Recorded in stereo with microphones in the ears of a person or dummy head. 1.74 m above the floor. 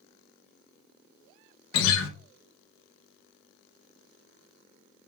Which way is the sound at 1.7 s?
70° left (ahead or behind).